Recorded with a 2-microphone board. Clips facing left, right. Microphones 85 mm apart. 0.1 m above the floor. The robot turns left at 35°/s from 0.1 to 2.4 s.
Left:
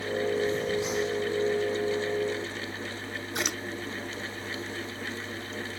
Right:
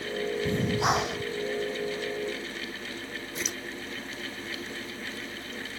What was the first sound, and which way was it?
Breathing, 60° right (ahead or behind).